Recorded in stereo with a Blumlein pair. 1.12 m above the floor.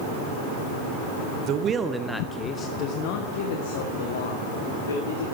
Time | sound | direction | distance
1.5 | a man speaking | 35° right | 0.8 m